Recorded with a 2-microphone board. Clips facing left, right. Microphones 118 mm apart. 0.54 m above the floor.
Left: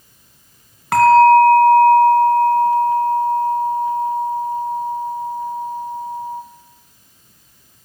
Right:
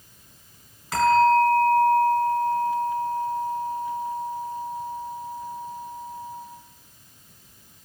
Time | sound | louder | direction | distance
0.9 | a bell | left 9 dB | 65° left (ahead or behind) | 3 m